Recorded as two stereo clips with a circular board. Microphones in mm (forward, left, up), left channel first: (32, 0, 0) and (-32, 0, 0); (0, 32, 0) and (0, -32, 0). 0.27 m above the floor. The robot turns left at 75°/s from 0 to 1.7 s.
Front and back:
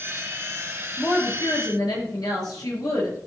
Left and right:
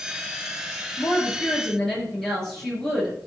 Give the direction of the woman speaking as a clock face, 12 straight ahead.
10 o'clock.